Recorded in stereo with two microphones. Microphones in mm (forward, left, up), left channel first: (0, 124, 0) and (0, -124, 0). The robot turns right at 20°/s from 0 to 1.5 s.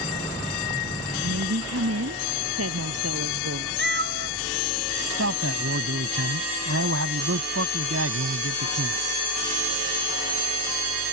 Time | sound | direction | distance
1.2 | a woman speaking | 80° right | ?
3.8 | a cat meowing | 45° right (ahead or behind) | ?
5.1 | a man speaking | 65° right (ahead or behind) | ?